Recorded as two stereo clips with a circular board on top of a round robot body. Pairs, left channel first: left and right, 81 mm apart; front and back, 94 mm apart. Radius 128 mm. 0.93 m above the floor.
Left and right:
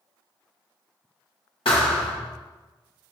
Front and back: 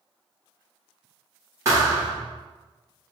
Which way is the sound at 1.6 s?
120° left.